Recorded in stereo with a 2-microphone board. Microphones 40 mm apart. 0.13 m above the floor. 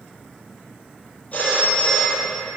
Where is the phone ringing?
35° left (ahead or behind), 1.8 m.